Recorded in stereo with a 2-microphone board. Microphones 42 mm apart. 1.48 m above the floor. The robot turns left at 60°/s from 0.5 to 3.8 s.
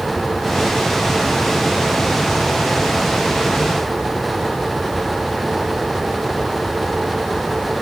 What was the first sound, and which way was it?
Only background noise.